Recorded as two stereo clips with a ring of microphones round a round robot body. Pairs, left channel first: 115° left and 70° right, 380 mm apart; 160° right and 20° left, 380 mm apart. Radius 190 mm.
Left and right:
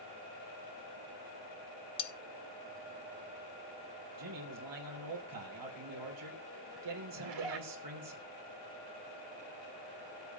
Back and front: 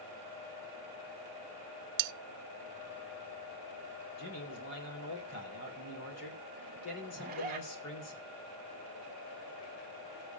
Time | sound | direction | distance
2.0 | cutlery clinking | 35° left | 0.5 m
4.2 | a man speaking | 105° right | 3.5 m
7.2 | a zipper | 45° right | 2 m